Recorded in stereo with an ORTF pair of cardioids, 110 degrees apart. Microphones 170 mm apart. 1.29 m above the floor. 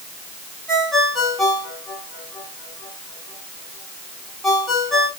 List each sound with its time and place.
0.7 s a ringtone: straight ahead, 5 m